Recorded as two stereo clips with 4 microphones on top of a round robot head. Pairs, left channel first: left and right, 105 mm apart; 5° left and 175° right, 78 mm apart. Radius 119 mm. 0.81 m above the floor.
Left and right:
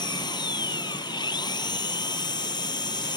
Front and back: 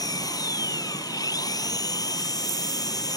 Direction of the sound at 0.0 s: 40° left.